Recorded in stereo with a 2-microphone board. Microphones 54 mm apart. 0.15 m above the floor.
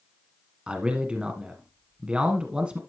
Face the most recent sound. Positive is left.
turn(degrees=-20)  # may be behind; listen again after turning